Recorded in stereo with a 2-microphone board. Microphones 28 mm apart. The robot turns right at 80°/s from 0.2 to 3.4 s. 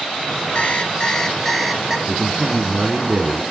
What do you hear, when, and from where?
0.6 s an alarm clock: 90° left, 1.1 m; by 2.0 s 155° right, 1.1 m
2.1 s a man speaking: 5° left (ahead or behind), 1.5 m; by 3.4 s 30° right (ahead or behind), 1.5 m